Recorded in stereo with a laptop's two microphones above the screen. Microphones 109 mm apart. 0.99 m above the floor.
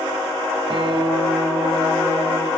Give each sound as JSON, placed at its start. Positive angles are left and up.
{"t": 0.7, "sound": "a guitar", "side_deg": -50, "distance_m": 6.5}